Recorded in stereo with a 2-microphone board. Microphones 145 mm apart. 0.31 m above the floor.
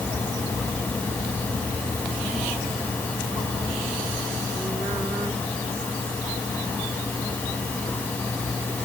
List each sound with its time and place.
Only background noise.